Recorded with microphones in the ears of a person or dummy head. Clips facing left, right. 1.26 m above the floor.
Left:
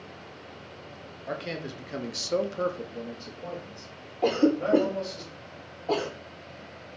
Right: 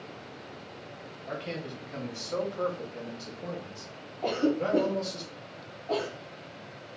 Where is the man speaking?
60° left (ahead or behind), 0.8 m; by 5.2 s 40° right (ahead or behind), 1.4 m.